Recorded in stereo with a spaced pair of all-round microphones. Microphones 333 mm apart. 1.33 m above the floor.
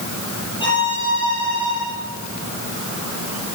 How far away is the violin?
About 8 m.